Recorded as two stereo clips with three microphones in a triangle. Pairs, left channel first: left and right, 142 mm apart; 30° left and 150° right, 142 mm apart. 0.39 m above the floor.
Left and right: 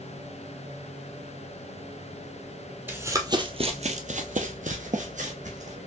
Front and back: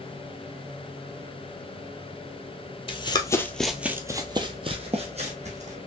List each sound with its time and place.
2.9 s running footsteps: 15° right, 0.8 m; by 5.8 s 120° right, 1.5 m